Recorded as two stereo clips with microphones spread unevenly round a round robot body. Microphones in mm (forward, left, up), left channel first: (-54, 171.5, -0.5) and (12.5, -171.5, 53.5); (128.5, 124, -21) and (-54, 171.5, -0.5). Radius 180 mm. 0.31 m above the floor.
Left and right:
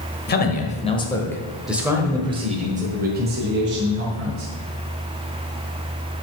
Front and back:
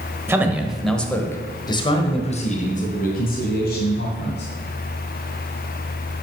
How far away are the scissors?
No scissors in this recording.